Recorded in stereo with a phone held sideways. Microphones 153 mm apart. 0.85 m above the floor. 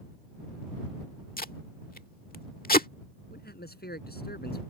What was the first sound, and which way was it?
Tape being pulled, 65° left (ahead or behind).